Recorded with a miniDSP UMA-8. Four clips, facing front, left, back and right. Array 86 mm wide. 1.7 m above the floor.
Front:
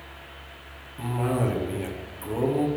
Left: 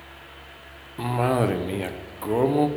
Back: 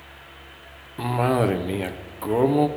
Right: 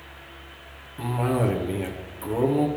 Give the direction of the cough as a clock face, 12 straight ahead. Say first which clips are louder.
Left 2 dB, back 5 dB; 7 o'clock.